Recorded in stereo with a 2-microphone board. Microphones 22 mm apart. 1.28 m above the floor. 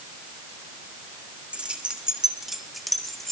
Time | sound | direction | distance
1.5 | keys jangling | 65° right (ahead or behind) | 1.5 m